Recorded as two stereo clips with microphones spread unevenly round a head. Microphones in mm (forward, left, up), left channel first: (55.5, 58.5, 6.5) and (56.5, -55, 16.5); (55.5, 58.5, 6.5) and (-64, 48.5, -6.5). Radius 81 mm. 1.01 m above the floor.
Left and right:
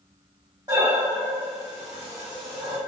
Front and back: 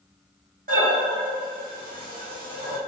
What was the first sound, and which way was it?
Breathing, 160° right.